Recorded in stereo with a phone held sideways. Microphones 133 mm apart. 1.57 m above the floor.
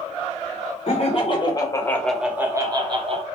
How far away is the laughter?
About 0.9 m.